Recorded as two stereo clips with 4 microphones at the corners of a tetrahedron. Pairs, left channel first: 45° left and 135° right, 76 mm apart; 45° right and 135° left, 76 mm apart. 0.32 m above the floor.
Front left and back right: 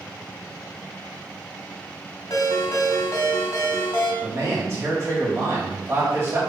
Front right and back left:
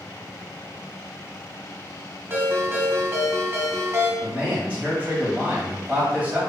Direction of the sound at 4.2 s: 165° right.